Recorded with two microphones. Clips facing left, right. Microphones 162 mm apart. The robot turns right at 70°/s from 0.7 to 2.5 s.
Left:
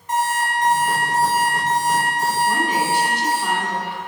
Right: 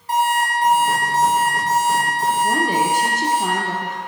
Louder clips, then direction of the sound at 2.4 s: Right 2 dB; 45° right (ahead or behind).